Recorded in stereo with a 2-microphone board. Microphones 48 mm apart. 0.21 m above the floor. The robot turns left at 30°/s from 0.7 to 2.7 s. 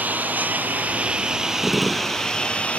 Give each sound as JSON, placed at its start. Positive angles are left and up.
{"t": 0.0, "sound": "a lawn mower", "azimuth_deg": -145}
{"t": 1.6, "sound": "a gunshot", "side_deg": -5}